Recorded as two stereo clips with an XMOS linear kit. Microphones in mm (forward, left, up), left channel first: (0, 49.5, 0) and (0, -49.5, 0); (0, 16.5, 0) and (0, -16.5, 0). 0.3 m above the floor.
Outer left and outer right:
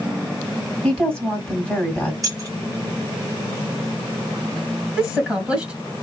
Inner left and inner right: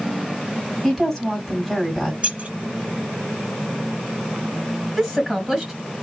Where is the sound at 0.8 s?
10° left (ahead or behind), 1.9 m.